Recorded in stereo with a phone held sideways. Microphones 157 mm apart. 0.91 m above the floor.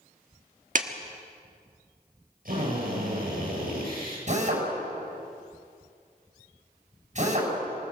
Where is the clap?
55° right (ahead or behind), 1.4 m.